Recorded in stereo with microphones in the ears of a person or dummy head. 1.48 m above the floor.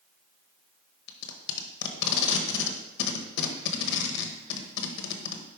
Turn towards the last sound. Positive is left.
turn(degrees=60)  # may be behind; listen again after turning